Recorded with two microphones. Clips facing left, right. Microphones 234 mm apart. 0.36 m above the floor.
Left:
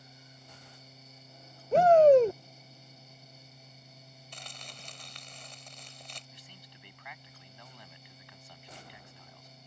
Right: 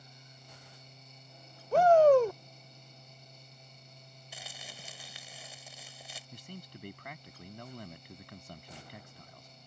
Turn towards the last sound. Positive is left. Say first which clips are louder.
# right 9 dB
turn(degrees=-50)  # may be behind; listen again after turning